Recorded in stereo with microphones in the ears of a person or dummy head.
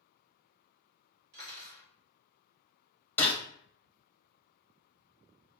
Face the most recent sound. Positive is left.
turn(degrees=10)  # may be behind; listen again after turning